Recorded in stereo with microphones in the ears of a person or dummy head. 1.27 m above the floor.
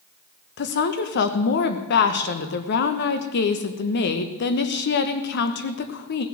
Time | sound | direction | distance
0.6 | a woman speaking | 60° left (ahead or behind) | 1.1 m